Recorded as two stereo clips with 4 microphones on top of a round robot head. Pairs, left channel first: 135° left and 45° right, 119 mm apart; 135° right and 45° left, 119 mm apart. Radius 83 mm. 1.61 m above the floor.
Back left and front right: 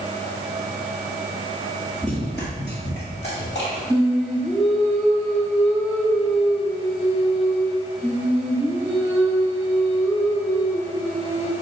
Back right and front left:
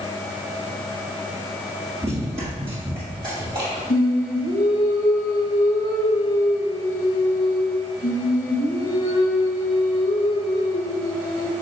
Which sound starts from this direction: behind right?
Singing, at 3.9 s.